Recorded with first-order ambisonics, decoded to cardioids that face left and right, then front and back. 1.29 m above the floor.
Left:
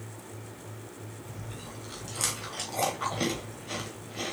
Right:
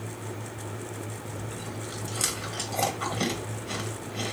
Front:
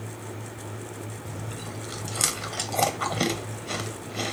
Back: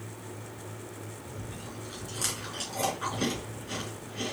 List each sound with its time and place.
1.2 s chewing: 5° right, 1.0 m